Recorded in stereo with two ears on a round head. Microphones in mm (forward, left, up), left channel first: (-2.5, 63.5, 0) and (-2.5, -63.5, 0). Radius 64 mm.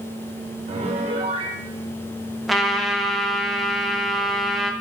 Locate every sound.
0.7 s a piano: 45° right (ahead or behind), 1.3 m
2.5 s a trumpet: centre (ahead or behind), 0.8 m